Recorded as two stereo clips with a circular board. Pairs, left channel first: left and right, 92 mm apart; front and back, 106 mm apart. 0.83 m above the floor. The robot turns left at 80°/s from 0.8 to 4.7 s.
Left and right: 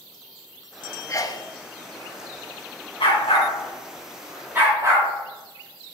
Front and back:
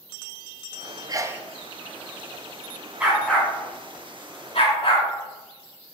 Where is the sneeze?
140° left, 0.6 m; by 1.4 s 110° left, 0.6 m.